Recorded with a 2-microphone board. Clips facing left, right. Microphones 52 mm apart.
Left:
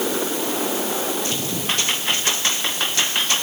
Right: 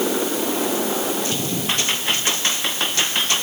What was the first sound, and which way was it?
Only background noise.